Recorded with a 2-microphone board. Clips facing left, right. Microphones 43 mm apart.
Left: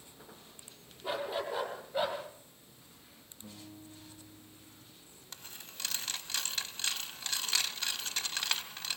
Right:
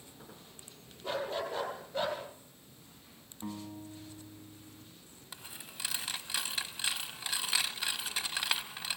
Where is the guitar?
55° right (ahead or behind), 4.5 m.